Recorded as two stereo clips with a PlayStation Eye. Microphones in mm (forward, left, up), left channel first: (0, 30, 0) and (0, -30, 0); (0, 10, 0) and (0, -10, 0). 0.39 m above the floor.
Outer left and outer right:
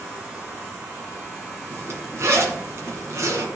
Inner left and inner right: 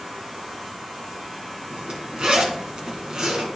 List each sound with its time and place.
1.7 s a zipper: 50° right (ahead or behind), 1.5 m